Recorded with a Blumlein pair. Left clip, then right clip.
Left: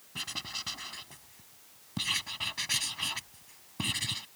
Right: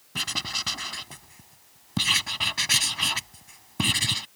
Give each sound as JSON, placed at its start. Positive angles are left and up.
{"t": 0.1, "sound": "writing", "azimuth_deg": -25}